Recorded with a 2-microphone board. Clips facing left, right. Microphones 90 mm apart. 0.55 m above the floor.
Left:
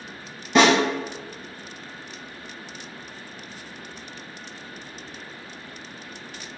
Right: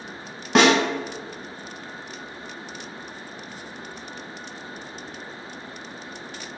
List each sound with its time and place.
0.6 s a snare drum: 75° right (ahead or behind), 1.2 m